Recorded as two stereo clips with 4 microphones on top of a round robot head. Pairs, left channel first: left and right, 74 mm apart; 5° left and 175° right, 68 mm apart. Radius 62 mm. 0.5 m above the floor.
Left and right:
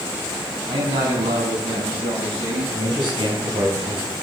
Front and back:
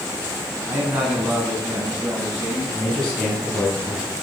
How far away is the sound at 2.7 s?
About 4.5 m.